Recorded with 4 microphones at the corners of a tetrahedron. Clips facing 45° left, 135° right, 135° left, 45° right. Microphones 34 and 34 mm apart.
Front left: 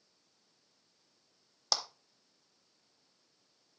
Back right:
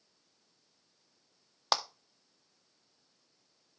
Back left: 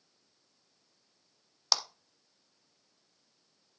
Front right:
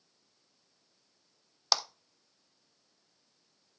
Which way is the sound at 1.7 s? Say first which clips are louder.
Back right 5 dB, front right 1 dB; 125° right.